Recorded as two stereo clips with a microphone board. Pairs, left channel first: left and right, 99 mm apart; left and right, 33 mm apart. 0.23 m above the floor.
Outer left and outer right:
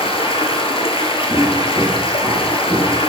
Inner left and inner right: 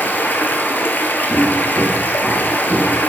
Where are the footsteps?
20° left (ahead or behind), 4 m; by 3.0 s 35° left (ahead or behind), 3 m.